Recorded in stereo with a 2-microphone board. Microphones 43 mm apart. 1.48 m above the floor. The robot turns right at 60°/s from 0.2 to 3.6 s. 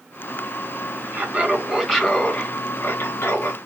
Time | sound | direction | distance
1.1 | laughter | 45° right | 2.5 m